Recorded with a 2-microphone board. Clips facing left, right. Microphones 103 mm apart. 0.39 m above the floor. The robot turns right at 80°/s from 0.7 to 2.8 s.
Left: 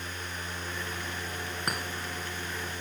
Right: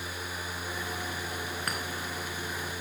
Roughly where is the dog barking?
No dog barking in this recording.